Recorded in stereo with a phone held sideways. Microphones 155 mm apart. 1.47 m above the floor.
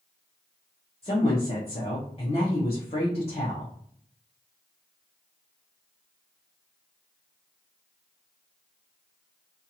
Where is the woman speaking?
40° left (ahead or behind), 0.9 m.